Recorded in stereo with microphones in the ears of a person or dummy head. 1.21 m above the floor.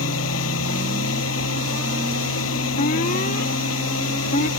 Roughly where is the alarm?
Left.